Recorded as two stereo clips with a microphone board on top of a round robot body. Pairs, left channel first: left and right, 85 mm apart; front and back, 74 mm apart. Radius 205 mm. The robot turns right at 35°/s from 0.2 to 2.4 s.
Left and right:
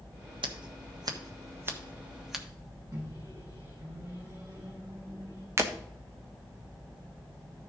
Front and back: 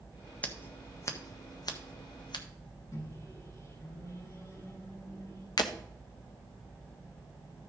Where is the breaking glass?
30° right, 0.9 m.